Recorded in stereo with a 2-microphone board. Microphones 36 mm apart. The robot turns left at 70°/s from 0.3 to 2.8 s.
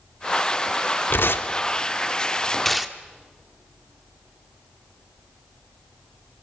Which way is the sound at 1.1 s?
65° left (ahead or behind).